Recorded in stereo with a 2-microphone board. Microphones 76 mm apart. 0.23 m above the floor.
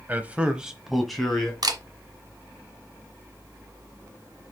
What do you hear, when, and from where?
0.1 s a man speaking: 20° right (ahead or behind), 1.1 m; by 1.5 s 5° left (ahead or behind), 2.0 m
1.6 s a camera shutter: 60° right (ahead or behind), 1.2 m